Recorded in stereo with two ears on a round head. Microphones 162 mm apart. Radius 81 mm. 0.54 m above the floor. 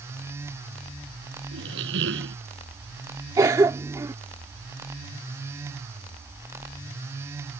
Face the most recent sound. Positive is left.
turn(degrees=-20)  # may be behind; listen again after turning